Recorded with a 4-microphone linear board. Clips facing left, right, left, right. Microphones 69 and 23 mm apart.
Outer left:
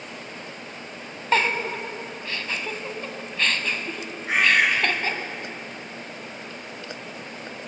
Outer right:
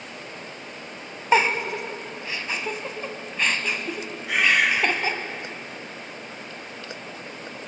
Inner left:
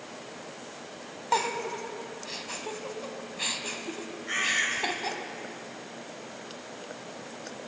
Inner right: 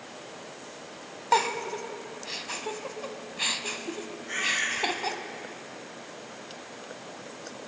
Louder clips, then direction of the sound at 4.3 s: Outer left 1 dB, inner left 1 dB; 35° left (ahead or behind).